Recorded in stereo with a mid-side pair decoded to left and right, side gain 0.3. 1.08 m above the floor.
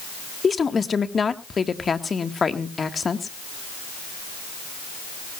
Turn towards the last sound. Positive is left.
turn(degrees=50)